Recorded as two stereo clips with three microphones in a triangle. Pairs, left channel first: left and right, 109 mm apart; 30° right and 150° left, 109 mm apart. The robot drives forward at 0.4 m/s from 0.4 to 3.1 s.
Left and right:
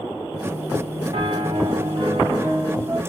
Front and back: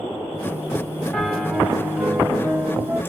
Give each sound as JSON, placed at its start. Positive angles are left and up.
{"t": 1.1, "sound": "a piano", "azimuth_deg": -110, "distance_m": 0.9}